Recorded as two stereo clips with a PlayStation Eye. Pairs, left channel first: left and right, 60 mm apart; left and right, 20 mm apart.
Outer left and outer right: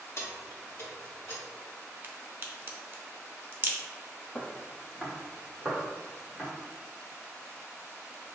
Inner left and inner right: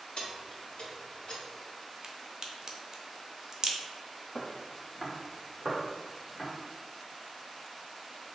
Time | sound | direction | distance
0.2 | keys jangling | 55° left (ahead or behind) | 1.1 m
2.0 | a crack | 40° right (ahead or behind) | 0.6 m
4.3 | footsteps | 20° left (ahead or behind) | 0.8 m